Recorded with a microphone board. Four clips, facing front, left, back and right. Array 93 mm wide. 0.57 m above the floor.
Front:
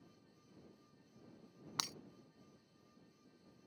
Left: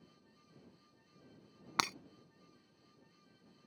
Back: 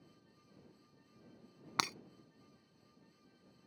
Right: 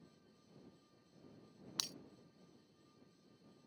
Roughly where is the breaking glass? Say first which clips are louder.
Left 19 dB, back 9 dB; behind left.